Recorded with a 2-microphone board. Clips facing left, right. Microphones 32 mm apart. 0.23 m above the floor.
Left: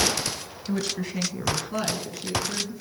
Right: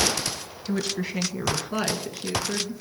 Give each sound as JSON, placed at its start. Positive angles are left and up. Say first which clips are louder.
{"t": 0.6, "sound": "a woman speaking", "louder": "right 1 dB", "side_deg": 0, "distance_m": 1.0}